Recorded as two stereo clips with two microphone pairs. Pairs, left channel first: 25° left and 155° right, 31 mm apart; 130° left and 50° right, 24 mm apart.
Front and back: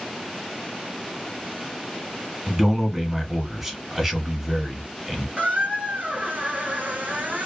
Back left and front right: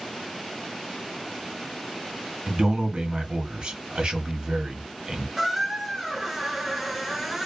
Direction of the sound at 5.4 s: 130° right.